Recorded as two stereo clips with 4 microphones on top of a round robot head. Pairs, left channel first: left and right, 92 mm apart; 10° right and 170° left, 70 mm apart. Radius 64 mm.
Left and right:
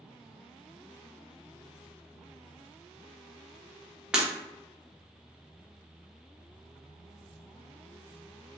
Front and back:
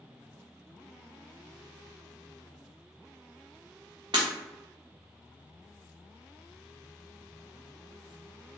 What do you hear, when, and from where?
4.1 s breaking glass: 170° right, 0.7 m